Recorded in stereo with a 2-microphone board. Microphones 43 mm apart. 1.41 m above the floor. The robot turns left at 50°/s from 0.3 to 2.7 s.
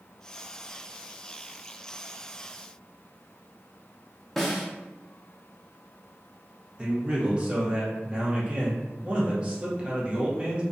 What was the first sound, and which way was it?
A snare drum, 5° left (ahead or behind).